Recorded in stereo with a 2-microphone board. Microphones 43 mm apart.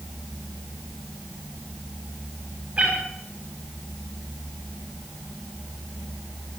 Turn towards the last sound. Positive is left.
turn(degrees=-35)  # may be behind; listen again after turning